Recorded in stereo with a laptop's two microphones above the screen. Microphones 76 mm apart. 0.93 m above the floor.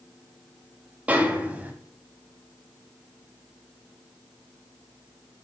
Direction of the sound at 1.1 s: 20° right (ahead or behind).